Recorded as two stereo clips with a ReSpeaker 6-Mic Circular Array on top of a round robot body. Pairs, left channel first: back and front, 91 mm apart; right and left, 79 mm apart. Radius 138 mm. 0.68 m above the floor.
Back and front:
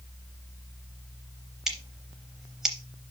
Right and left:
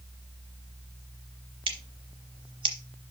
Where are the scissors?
85° left, 0.6 m.